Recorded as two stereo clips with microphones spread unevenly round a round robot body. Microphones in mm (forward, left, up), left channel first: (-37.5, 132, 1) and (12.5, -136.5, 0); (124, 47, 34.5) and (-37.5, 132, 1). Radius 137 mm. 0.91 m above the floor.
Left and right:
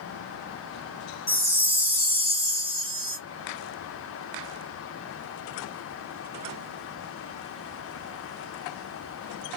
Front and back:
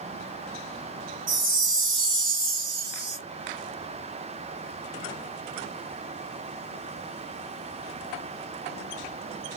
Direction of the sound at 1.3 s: 165° left.